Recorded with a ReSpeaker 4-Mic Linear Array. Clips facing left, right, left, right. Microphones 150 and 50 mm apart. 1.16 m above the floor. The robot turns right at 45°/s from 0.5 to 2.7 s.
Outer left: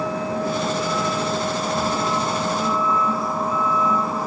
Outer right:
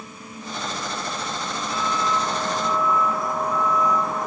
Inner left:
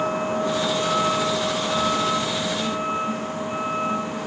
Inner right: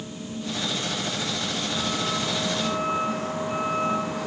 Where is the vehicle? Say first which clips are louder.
Outer left 15 dB, inner left 12 dB; 80° left; by 4.3 s 175° left.